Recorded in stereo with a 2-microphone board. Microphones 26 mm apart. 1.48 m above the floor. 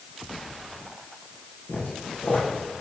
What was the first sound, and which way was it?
Footsteps, 75° left (ahead or behind).